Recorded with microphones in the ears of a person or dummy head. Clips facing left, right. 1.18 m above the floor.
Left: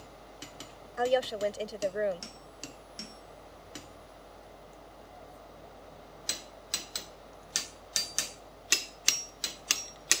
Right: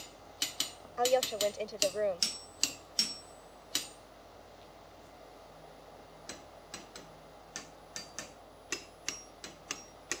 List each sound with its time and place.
1.0 s a woman speaking: 15° left (ahead or behind)